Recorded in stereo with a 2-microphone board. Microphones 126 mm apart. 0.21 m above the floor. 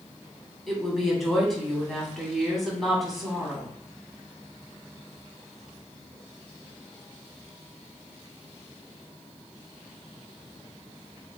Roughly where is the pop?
No pop in this recording.